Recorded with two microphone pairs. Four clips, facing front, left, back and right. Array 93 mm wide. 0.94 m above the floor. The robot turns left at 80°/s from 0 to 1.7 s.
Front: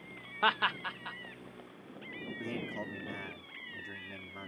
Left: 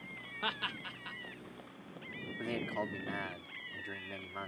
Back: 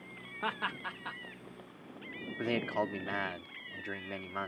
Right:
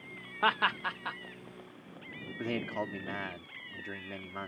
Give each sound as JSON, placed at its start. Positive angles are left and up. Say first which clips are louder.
{"t": 0.4, "sound": "laughter", "louder": "right 11 dB, front 6 dB", "azimuth_deg": -50}
{"t": 2.4, "sound": "a man speaking", "louder": "right 3 dB, back 8 dB", "azimuth_deg": 180}